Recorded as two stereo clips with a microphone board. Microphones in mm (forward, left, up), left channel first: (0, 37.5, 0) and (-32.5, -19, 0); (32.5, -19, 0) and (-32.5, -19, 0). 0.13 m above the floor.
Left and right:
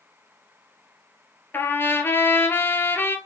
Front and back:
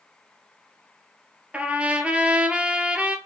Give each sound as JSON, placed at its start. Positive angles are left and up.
{"t": 1.5, "sound": "a trumpet", "azimuth_deg": 110, "distance_m": 0.6}